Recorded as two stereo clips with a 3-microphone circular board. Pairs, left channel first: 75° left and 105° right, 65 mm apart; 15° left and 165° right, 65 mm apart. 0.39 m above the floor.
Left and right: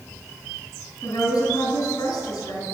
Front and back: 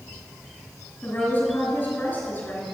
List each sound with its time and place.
1.0 s a woman speaking: 75° left, 4 m